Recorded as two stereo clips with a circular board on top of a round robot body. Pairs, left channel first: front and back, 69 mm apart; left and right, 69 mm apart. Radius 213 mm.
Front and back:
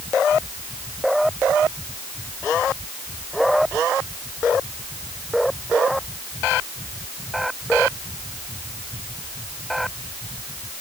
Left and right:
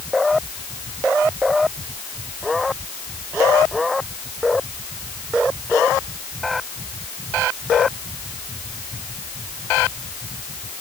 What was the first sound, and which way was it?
Only background noise.